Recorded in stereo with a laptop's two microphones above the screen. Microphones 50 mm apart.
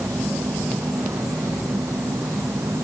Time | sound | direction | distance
0.0 | an insect | 85° right | ?